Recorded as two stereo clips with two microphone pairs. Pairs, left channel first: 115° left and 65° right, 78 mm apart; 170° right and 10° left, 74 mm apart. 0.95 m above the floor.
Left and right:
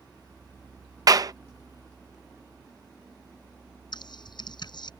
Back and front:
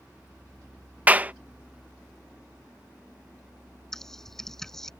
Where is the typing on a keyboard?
105° left.